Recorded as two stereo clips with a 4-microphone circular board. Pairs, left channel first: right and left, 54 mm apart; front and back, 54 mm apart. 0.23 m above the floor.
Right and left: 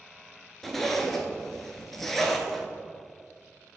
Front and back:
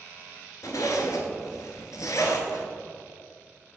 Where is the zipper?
Straight ahead, 0.7 m.